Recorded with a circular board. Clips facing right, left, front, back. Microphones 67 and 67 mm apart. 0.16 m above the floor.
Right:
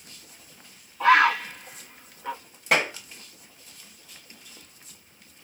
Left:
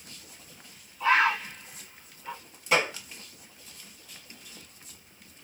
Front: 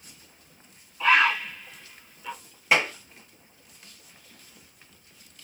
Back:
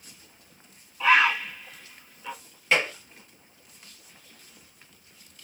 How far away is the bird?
About 0.8 m.